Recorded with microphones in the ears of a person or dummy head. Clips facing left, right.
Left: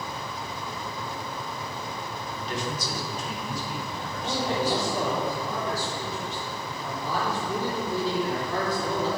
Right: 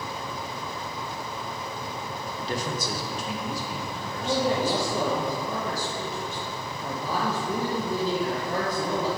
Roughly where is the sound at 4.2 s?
Right.